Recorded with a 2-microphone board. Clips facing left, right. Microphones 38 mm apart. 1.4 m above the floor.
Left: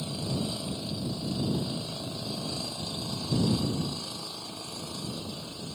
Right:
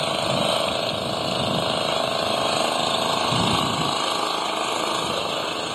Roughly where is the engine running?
Right.